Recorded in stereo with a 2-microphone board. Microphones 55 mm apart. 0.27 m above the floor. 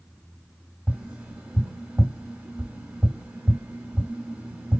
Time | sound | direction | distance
0.9 | tapping | 25° right (ahead or behind) | 2 m